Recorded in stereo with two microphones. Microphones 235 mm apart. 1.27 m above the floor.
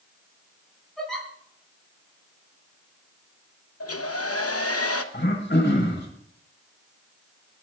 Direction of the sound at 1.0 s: Centre (ahead or behind).